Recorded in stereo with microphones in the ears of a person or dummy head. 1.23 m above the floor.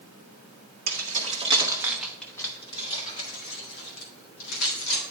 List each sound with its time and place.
0.9 s keys jangling: 55° right (ahead or behind), 1.5 m; by 5.0 s 60° left (ahead or behind), 3 m